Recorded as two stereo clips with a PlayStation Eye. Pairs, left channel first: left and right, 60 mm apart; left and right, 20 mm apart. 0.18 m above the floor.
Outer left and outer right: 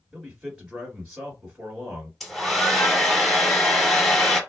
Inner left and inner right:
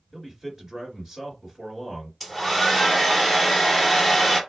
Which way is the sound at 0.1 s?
10° right (ahead or behind).